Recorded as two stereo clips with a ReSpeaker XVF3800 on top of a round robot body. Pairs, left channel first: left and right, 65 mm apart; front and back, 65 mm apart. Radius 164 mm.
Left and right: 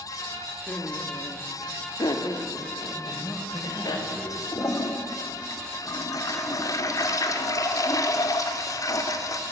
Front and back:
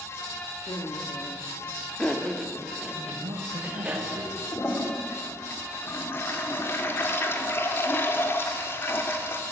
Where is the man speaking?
175° left, 4.5 m.